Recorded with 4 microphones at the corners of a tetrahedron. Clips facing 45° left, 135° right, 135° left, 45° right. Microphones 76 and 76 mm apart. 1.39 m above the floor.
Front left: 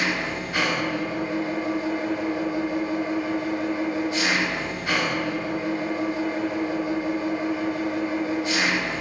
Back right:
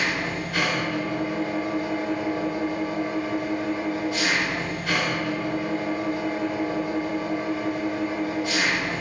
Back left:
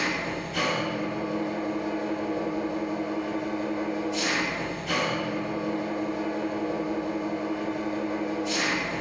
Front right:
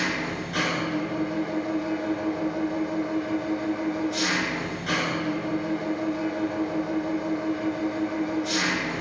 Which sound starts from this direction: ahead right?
An engine running, at 0.0 s.